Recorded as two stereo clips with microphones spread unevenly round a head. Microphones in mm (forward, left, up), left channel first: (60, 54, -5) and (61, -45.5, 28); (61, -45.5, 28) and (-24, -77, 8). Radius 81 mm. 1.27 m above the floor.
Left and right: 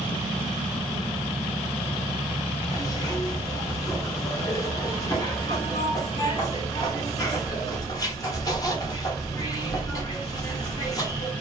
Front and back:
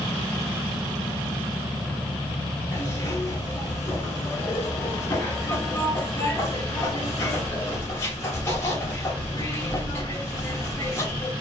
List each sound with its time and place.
2.7 s a zipper: 30° left, 0.7 m